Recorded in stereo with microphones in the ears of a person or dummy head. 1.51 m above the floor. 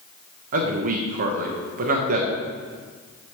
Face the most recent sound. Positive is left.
turn(degrees=-40)  # may be behind; listen again after turning